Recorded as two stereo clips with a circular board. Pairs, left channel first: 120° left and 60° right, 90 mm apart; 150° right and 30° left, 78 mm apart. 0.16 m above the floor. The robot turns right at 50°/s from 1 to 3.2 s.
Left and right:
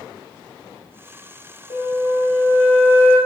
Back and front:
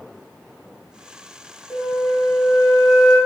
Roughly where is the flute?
Behind left.